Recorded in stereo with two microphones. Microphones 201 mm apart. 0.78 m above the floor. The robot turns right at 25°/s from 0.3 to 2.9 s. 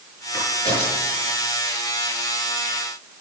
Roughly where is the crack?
Centre.